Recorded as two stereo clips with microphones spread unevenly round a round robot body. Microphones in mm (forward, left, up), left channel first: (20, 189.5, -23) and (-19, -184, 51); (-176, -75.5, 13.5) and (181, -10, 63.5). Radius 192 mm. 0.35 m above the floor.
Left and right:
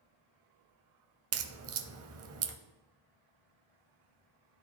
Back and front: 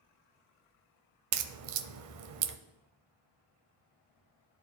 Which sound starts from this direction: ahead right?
A crack, at 1.3 s.